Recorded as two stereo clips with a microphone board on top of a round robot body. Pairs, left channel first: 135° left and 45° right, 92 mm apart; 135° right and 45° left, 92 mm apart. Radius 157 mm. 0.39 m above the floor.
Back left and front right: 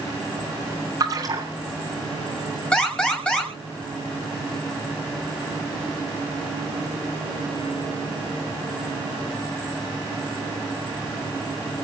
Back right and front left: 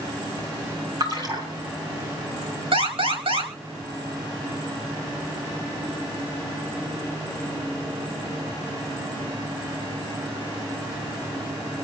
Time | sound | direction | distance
1.0 | a splash | straight ahead | 6.5 m
2.7 | an alarm | 55° left | 6 m